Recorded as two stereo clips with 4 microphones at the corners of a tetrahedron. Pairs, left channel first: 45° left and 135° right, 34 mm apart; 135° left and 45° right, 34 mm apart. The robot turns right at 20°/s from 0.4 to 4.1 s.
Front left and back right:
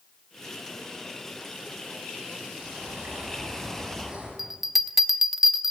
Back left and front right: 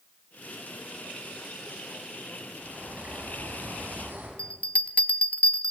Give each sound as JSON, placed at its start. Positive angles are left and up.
{"t": 2.6, "sound": "a bird", "azimuth_deg": -100, "distance_m": 7.0}
{"t": 4.4, "sound": "a bell", "azimuth_deg": 150, "distance_m": 0.6}